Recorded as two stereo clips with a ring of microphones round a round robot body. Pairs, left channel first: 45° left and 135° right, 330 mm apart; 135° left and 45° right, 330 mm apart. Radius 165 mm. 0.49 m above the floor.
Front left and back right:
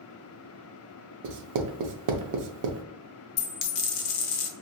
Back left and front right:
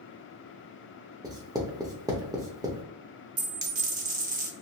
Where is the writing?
125° right, 0.5 m.